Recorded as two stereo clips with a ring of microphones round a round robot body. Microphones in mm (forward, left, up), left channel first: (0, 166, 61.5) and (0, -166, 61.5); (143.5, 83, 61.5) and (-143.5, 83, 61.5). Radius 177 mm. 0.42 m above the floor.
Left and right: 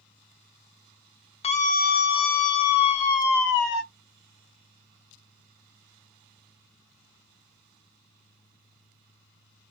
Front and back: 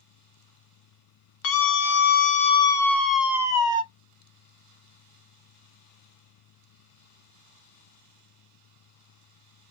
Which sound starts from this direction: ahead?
A scream, at 1.4 s.